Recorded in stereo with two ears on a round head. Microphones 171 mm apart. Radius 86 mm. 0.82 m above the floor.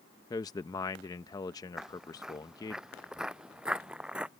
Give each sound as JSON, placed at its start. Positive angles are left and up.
{"t": 0.3, "sound": "a man speaking", "side_deg": 20}
{"t": 1.8, "sound": "footsteps", "side_deg": -5}